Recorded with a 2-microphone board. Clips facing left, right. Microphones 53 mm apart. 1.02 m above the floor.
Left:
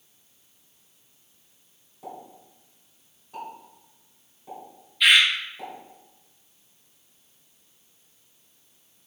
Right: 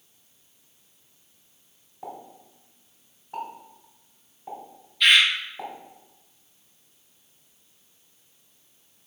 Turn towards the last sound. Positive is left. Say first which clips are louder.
# even
turn(degrees=5)  # may be behind; listen again after turning